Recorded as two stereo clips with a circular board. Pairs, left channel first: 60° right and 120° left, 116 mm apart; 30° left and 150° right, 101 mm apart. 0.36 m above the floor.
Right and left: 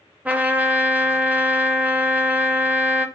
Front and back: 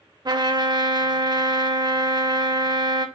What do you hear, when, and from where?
0.2 s a trumpet: 165° right, 0.5 m